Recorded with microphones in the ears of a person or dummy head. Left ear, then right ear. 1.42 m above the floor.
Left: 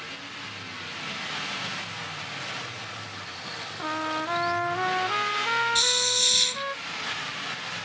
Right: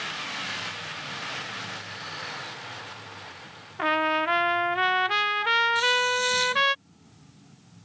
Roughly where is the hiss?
Left.